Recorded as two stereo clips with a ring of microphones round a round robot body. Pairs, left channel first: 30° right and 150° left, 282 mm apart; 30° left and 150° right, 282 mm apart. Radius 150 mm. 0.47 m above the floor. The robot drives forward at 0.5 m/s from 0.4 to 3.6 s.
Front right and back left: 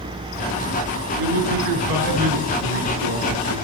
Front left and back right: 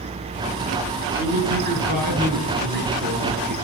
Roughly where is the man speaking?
Behind left.